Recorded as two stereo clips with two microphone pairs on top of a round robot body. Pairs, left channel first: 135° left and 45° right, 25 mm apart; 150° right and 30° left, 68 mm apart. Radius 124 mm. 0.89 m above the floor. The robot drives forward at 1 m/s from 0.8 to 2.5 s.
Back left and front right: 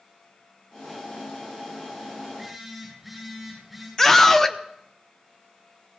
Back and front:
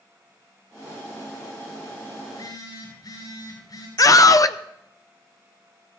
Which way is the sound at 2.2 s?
130° right.